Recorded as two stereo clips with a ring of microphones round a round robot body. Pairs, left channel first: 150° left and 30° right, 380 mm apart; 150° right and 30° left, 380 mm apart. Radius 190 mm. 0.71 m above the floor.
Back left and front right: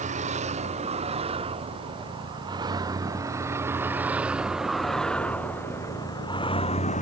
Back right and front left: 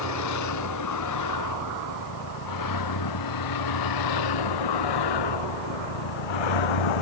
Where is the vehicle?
100° right; by 7.0 s 140° right.